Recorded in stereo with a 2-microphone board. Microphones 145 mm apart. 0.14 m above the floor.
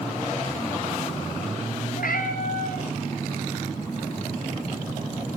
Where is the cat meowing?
75° left (ahead or behind), 4.5 m.